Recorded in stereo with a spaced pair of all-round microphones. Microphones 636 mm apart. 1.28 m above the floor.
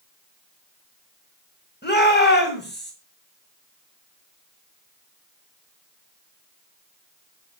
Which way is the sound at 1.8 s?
15° left (ahead or behind).